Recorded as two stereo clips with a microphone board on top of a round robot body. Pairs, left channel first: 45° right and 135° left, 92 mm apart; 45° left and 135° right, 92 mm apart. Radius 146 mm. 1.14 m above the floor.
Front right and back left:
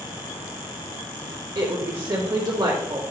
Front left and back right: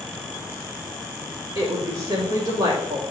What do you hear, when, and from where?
1.6 s a woman speaking: 170° right, 2.5 m